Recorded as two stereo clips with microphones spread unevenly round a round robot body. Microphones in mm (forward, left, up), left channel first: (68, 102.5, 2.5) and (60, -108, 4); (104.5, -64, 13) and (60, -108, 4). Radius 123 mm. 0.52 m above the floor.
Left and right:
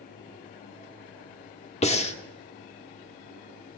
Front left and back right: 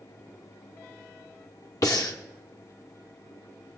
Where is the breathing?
40° left, 0.9 m.